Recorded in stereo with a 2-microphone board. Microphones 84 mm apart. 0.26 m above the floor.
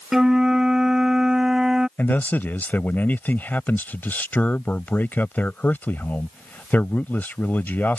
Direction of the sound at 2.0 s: 20° left (ahead or behind).